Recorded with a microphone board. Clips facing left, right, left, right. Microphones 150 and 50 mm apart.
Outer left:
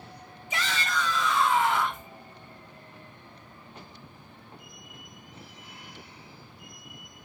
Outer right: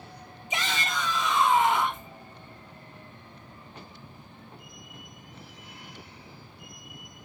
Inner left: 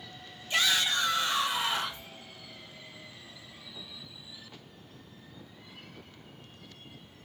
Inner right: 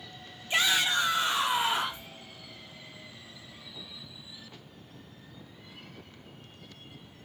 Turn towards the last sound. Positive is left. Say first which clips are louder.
# even, inner right 1 dB
turn(degrees=-20)  # may be behind; listen again after turning